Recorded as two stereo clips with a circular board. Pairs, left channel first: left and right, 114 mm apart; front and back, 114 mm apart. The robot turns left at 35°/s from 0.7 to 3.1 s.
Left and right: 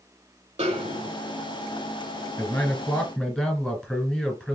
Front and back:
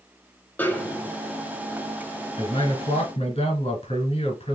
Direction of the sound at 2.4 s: 35° left.